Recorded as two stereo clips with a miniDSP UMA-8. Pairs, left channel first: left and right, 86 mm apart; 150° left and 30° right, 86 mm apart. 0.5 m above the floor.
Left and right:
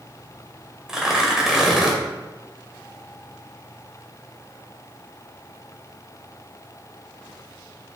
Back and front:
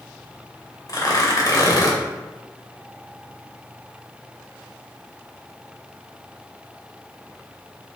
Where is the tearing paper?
175° right, 2.5 m.